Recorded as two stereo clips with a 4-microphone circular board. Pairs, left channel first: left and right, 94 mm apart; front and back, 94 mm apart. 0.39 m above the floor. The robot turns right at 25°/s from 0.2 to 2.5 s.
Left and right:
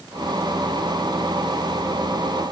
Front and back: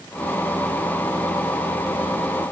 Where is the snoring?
I don't hear snoring.